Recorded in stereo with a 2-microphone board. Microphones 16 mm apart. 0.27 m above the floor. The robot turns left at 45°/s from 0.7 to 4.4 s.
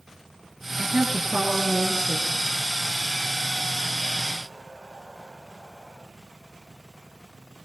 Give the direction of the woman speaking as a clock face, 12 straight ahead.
1 o'clock.